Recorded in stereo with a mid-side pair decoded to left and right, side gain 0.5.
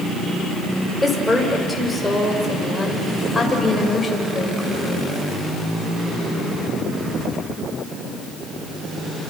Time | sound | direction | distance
1.0 | a woman speaking | 5° left | 7 m